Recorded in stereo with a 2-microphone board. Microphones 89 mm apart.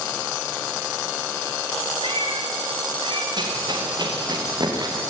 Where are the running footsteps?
55° right (ahead or behind), 6 m; by 5.0 s 45° right (ahead or behind), 6 m.